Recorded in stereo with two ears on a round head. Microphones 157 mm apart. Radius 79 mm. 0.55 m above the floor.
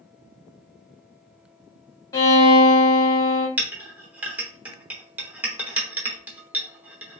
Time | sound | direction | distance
2.1 | a violin | 20° left (ahead or behind) | 1.2 m
3.6 | a clink | 10° right (ahead or behind) | 0.7 m